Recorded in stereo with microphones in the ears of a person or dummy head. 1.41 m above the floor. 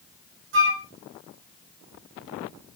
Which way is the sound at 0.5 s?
70° right (ahead or behind).